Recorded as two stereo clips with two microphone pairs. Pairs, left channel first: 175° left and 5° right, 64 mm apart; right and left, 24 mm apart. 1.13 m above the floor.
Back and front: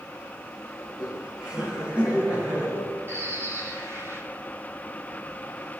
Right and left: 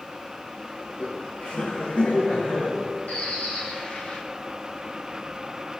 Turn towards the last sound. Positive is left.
turn(degrees=-60)